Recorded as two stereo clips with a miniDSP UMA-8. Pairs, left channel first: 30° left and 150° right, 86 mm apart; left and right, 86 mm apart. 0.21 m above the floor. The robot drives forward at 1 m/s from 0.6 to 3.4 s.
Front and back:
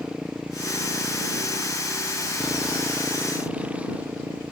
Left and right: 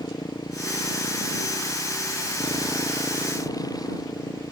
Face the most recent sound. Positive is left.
turn(degrees=135)